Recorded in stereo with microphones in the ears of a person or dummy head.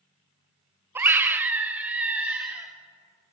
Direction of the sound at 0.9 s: 10° right (ahead or behind).